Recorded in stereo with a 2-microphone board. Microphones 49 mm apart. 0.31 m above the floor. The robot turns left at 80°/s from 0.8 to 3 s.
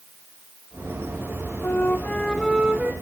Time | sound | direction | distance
1.6 | a flute | 65° left | 3 m